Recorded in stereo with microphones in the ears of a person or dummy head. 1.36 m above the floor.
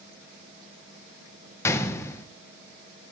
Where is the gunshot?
10° left (ahead or behind), 0.9 m.